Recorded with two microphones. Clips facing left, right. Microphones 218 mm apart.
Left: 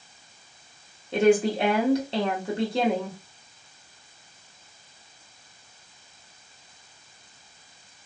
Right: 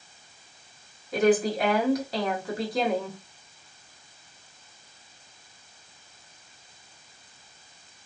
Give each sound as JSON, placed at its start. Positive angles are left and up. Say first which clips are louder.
{"t": 1.1, "sound": "a woman speaking", "louder": "left 2 dB", "side_deg": 30, "distance_m": 1.1}